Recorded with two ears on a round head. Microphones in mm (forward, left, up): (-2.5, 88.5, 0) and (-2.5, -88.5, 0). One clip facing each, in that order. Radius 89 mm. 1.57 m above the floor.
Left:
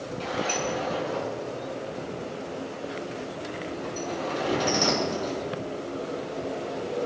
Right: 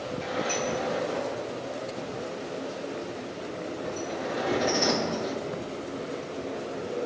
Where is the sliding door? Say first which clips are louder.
Left 1 dB; 75° left (ahead or behind), 5.5 m.